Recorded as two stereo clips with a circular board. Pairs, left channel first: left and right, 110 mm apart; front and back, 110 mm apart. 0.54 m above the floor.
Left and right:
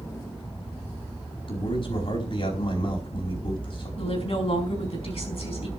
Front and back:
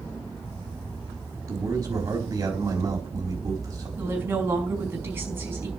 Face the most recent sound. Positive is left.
turn(degrees=110)